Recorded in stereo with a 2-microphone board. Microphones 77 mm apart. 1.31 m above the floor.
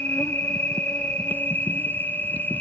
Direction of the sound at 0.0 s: 25° left (ahead or behind).